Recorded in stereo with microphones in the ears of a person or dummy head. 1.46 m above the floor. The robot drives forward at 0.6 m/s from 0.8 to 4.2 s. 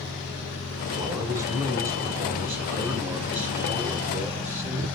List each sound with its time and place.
1.0 s a man speaking: 15° right (ahead or behind), 1.3 m; by 5.0 s 5° right (ahead or behind), 3 m